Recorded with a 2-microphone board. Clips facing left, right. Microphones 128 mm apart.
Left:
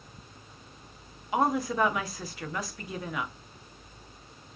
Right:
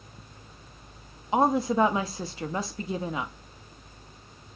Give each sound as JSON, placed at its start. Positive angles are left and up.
{"t": 1.3, "sound": "a woman speaking", "side_deg": -25, "distance_m": 0.6}